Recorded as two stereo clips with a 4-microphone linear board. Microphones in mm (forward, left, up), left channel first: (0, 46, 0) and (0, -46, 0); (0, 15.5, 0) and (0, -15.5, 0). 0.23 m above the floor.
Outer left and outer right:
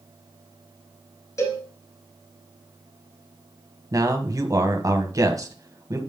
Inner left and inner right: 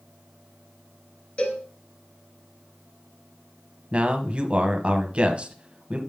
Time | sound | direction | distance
1.4 | a cowbell | 35° left (ahead or behind) | 1.9 m
3.9 | a man speaking | 40° right (ahead or behind) | 1.3 m